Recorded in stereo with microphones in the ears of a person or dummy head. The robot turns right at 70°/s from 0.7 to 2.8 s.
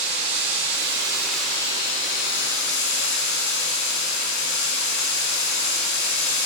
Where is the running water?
50° right, 1.1 m; by 6.5 s 95° left, 1.1 m.